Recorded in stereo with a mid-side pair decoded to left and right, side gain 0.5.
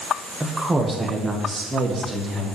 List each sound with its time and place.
0.4 s a woman speaking: 5° right, 1.4 m; by 2.5 s 35° right, 3 m